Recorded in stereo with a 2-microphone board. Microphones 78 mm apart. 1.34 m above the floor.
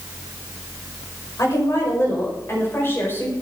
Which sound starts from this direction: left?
A woman speaking, at 1.4 s.